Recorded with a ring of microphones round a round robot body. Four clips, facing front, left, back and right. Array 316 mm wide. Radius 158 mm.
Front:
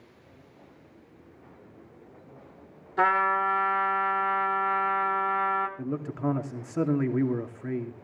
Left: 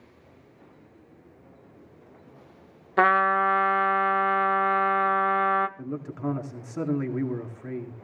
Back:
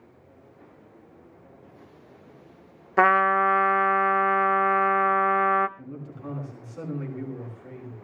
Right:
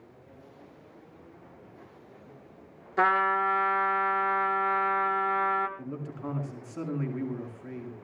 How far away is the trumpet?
About 0.5 m.